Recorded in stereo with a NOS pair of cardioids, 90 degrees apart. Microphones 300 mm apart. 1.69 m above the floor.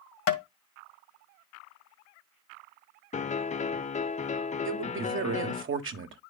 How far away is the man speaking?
About 1.3 m.